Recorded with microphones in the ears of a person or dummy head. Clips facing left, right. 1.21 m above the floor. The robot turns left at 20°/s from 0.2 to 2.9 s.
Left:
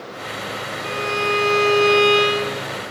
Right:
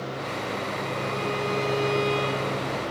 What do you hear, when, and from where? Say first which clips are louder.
0.8 s a violin: left 8 dB; 110° left; by 2.7 s 75° left